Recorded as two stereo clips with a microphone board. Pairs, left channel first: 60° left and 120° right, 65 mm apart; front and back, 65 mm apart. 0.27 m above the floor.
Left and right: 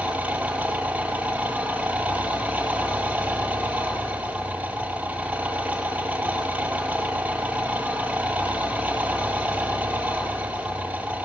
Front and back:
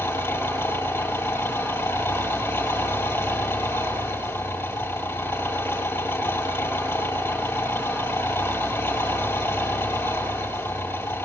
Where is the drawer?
I don't hear a drawer.